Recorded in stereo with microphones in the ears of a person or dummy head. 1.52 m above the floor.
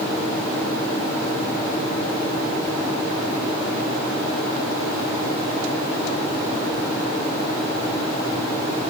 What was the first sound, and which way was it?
Only background noise.